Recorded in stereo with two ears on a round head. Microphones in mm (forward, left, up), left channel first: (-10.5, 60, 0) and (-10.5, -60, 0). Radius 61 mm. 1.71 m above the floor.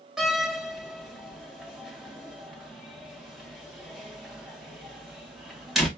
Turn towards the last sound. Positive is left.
turn(degrees=0)  # may be behind; listen again after turning